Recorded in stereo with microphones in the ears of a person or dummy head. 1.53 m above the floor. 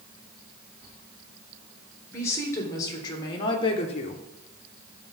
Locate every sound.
2.1 s a woman speaking: 15° left (ahead or behind), 3 m; by 4.2 s 45° left (ahead or behind), 1.0 m